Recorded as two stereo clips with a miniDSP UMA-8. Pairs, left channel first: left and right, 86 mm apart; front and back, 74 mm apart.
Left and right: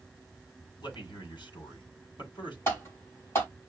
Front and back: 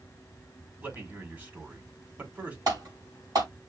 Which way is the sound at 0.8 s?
115° left.